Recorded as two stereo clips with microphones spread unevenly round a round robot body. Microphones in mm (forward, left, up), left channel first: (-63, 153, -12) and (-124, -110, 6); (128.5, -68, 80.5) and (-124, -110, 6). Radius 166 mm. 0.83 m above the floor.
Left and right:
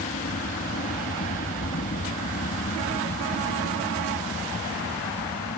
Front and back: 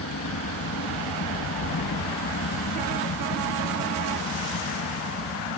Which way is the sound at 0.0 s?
30° left.